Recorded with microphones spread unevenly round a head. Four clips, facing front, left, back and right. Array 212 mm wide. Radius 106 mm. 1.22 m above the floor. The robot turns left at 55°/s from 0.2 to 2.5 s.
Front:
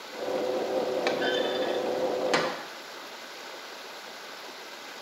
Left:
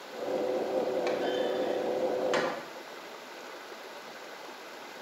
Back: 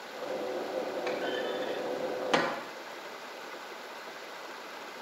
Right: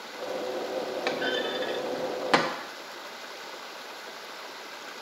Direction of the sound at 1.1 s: 25° right.